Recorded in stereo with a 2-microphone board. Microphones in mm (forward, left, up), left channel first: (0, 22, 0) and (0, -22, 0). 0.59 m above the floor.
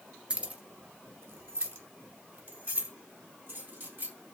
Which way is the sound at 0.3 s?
25° right (ahead or behind).